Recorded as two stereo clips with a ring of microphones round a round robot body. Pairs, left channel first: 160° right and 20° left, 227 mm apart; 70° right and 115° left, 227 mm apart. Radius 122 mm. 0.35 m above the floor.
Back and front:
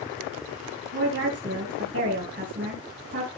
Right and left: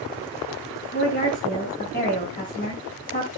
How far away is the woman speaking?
About 3 m.